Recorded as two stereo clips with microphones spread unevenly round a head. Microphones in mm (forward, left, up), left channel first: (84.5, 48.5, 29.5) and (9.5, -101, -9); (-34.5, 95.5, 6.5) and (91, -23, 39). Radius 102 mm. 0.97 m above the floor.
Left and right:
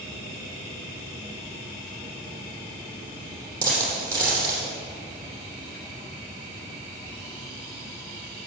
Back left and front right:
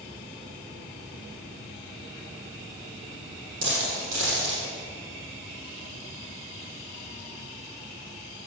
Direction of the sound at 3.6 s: 45° right.